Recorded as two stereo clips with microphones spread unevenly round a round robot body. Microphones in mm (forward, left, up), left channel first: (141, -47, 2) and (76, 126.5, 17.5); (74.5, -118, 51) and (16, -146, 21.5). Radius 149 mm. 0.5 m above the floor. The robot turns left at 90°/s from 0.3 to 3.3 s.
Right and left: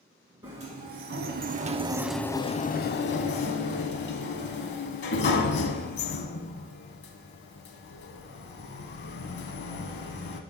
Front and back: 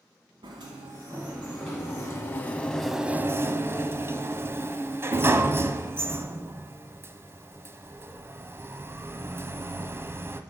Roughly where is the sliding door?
Behind.